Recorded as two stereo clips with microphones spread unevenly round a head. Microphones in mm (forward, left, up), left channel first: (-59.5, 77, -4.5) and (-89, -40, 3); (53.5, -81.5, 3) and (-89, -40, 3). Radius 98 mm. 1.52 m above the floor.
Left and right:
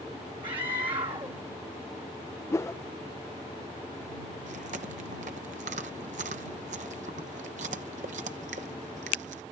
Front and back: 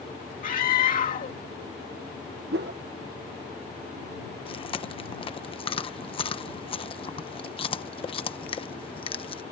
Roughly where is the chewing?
Right.